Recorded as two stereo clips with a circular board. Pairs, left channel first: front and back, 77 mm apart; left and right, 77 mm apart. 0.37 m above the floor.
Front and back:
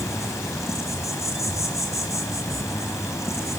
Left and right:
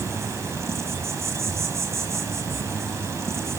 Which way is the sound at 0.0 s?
45° right.